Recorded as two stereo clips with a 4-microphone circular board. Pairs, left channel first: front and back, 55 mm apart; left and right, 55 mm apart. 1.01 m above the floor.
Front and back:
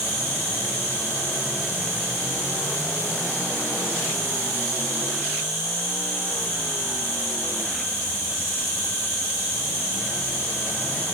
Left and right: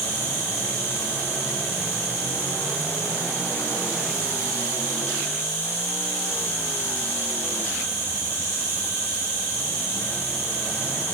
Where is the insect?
150° right, 3 m.